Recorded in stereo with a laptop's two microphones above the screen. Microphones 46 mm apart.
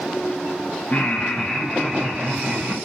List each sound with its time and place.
0.9 s laughter: 35° left (ahead or behind), 0.7 m; by 2.8 s 30° right (ahead or behind), 1.0 m